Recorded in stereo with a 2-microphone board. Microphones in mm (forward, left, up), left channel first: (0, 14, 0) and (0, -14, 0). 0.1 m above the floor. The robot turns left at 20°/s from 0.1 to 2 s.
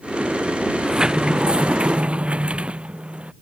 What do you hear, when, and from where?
0.7 s a sliding door: 20° right (ahead or behind); by 3.3 s 45° right (ahead or behind)